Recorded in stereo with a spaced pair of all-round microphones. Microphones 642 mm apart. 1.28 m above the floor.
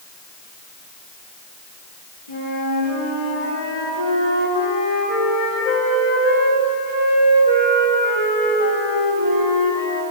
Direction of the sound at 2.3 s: 65° left (ahead or behind).